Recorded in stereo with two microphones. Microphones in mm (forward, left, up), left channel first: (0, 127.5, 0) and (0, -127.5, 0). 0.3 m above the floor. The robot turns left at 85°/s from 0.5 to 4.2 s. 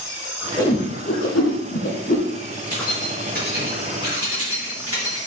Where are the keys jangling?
15° left (ahead or behind), 3.5 m; by 5.2 s 65° right (ahead or behind), 3.5 m.